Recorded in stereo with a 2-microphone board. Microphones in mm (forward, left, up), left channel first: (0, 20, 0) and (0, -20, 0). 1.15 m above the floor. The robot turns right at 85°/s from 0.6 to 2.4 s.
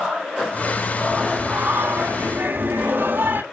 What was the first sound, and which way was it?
Singing, 175° right.